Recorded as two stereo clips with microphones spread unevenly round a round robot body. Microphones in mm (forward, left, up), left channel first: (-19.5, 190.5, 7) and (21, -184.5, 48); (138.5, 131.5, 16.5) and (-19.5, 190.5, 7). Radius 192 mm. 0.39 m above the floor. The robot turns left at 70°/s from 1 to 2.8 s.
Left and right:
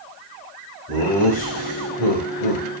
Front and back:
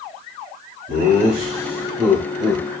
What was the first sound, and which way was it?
Laughter, 150° left.